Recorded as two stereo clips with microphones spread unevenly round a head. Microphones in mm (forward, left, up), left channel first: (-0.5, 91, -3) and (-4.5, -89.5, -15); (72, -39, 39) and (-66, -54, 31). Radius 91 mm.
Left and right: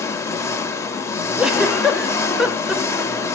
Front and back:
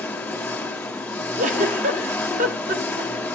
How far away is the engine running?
About 1.2 m.